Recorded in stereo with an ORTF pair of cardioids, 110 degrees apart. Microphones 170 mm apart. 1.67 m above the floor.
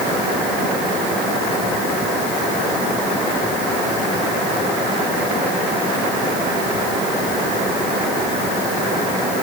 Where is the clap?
I don't hear a clap.